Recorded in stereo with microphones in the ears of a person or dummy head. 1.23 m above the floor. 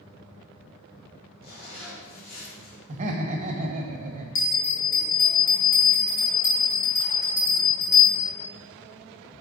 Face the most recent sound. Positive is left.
turn(degrees=60)  # may be behind; listen again after turning